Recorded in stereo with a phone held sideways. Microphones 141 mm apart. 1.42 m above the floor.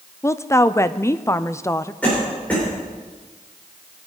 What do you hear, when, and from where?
0.2 s a woman speaking: 20° left (ahead or behind), 0.5 m
2.0 s a cough: 10° left (ahead or behind), 4.5 m